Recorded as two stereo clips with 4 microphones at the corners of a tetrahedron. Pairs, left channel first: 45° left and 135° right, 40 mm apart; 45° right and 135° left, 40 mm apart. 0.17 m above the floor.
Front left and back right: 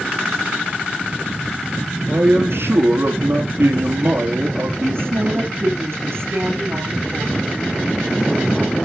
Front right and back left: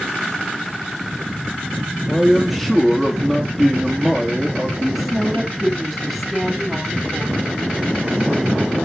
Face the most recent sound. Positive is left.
turn(degrees=-140)